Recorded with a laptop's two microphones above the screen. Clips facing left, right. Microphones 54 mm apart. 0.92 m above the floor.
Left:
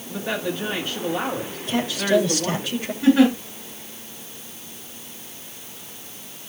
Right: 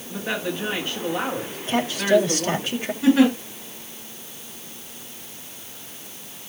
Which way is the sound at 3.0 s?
15° left (ahead or behind).